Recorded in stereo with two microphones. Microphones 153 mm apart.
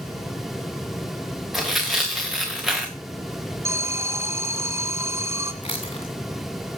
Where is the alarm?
20° right (ahead or behind), 1.8 m.